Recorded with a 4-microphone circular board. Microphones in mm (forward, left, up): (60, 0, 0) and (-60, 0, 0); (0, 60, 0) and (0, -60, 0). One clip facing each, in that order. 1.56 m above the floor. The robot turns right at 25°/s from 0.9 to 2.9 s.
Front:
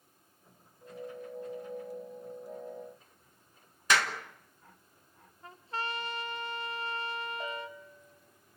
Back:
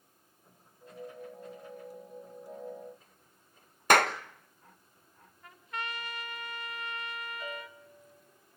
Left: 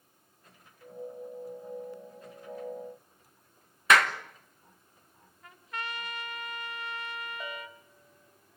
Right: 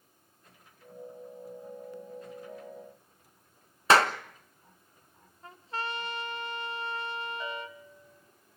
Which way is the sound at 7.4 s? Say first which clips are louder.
Front 3 dB, right 3 dB; 25° left.